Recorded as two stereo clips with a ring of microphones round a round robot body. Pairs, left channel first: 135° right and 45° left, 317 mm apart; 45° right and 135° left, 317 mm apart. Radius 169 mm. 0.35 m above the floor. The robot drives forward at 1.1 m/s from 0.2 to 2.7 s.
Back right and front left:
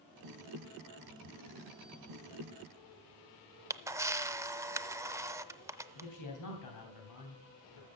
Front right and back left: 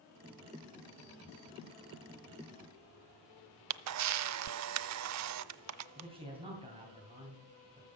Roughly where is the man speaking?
Behind right.